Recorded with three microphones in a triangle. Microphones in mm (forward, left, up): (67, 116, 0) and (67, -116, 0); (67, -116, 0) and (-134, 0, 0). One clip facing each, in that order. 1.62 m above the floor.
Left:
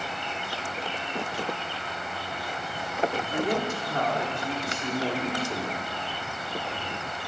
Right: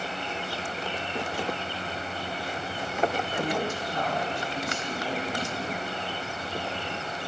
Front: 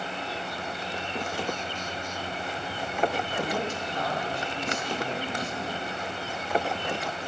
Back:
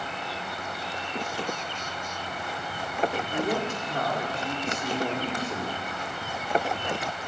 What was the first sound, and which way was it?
A woman speaking, 120° left.